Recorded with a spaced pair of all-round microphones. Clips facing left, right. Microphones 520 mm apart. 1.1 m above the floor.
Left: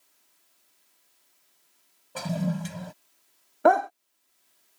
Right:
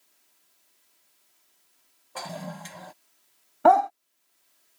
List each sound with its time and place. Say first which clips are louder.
2.1 s a toilet flushing: left 9 dB; 50° left (ahead or behind)
3.6 s a dog barking: right 1 dB; 20° right (ahead or behind)